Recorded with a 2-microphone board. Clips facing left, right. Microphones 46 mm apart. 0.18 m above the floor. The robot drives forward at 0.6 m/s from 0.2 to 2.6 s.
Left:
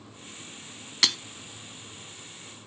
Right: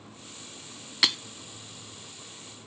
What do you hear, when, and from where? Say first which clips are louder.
1.0 s breaking glass: even; 5° right (ahead or behind), 0.7 m